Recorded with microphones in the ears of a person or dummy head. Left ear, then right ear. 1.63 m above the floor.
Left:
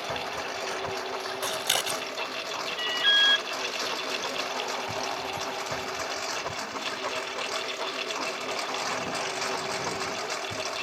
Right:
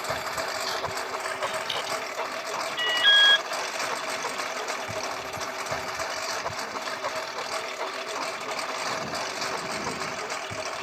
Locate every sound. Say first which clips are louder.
0.0 s a lawn mower: right 2 dB; 25° right (ahead or behind); by 10.8 s 5° right (ahead or behind)
1.4 s scissors: left 4 dB; 40° left (ahead or behind)
2.8 s an alarm: right 4 dB; 25° right (ahead or behind)